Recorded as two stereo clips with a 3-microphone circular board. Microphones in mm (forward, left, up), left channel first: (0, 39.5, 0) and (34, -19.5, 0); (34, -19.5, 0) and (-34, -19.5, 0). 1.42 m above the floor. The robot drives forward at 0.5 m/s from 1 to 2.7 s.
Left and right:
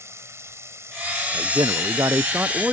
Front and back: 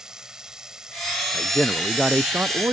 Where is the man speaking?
60° right; by 2.8 s 130° right.